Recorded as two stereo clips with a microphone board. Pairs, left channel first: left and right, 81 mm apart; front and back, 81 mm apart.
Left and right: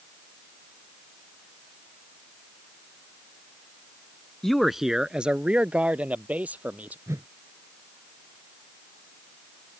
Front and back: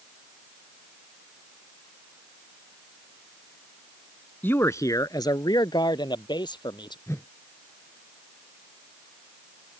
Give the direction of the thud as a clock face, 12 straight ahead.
No thud in this recording.